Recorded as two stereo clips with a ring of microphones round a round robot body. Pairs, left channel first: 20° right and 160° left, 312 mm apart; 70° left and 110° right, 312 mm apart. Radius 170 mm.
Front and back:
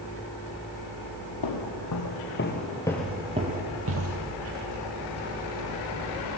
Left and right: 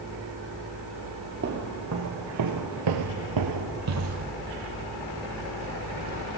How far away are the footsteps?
About 1.9 m.